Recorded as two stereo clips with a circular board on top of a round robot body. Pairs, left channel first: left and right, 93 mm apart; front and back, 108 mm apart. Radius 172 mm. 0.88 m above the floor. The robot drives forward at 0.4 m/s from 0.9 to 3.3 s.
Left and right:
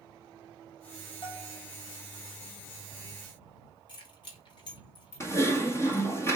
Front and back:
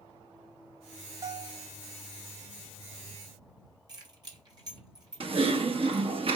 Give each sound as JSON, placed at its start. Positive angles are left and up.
{"t": 1.2, "sound": "a bell", "azimuth_deg": 120, "distance_m": 2.5}
{"t": 3.9, "sound": "keys jangling", "azimuth_deg": 125, "distance_m": 3.0}
{"t": 5.2, "sound": "typing on a keyboard", "azimuth_deg": 150, "distance_m": 1.8}